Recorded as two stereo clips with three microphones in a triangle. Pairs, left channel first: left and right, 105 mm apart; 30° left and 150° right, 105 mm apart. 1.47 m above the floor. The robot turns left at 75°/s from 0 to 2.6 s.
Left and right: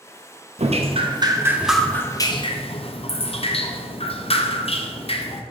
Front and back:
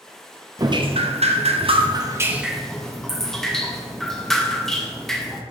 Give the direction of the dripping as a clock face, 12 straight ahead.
3 o'clock.